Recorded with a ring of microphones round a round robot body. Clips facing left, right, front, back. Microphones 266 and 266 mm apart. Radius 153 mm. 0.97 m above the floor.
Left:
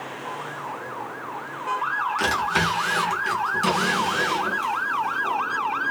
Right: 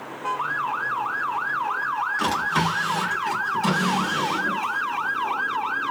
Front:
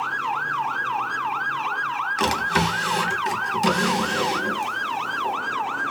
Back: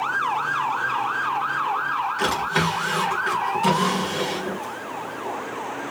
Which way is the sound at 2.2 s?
40° left.